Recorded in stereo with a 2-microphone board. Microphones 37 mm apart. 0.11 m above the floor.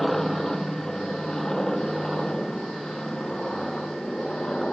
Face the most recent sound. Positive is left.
turn(degrees=15)  # may be behind; listen again after turning